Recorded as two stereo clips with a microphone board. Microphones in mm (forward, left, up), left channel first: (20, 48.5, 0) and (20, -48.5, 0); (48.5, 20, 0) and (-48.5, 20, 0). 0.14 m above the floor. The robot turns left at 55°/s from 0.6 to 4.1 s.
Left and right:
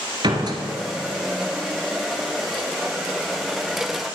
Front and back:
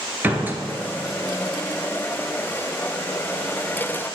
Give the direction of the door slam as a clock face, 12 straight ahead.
4 o'clock.